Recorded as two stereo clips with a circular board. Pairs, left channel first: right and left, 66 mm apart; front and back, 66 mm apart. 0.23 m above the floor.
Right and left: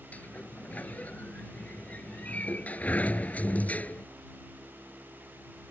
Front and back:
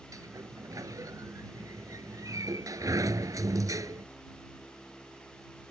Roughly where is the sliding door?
Behind right.